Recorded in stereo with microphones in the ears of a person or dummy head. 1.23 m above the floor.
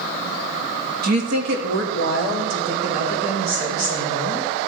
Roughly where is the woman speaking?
Right.